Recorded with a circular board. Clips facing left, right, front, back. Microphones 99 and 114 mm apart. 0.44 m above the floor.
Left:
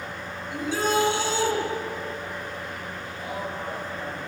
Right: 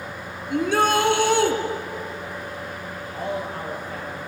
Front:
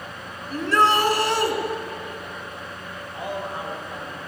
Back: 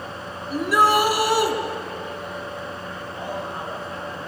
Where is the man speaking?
75° right, 10 m.